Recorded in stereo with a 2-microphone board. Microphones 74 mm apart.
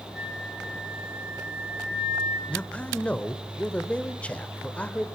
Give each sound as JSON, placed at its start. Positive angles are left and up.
{"t": 0.1, "sound": "a flute", "side_deg": -15, "distance_m": 6.5}
{"t": 2.5, "sound": "a man speaking", "side_deg": 15, "distance_m": 1.2}